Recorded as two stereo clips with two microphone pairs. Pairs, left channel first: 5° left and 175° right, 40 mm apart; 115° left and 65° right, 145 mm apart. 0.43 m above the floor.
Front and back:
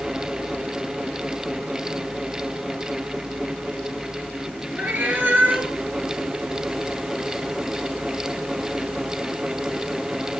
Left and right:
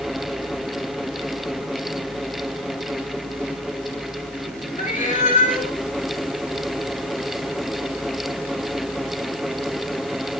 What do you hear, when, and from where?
4.8 s a cat meowing: 145° left, 1.4 m